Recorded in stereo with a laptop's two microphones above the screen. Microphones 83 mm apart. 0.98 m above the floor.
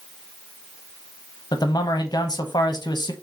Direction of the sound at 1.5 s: 60° left (ahead or behind).